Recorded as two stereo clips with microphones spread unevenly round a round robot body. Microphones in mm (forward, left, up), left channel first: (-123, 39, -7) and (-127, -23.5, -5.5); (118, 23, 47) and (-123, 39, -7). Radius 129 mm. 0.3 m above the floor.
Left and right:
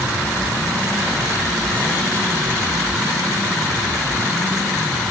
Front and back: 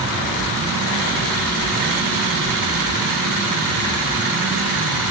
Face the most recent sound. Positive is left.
No sound to turn to.